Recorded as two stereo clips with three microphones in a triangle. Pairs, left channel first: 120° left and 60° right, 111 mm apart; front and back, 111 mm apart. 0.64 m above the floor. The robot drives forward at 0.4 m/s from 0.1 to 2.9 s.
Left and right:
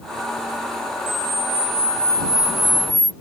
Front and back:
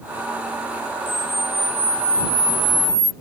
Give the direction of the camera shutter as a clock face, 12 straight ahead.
9 o'clock.